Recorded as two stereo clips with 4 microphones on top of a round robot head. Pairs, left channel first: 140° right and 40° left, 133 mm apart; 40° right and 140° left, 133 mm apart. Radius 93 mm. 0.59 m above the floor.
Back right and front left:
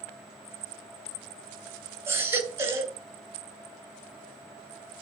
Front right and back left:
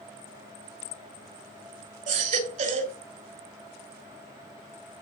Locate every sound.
2.1 s a baby crying: 110° left, 3.5 m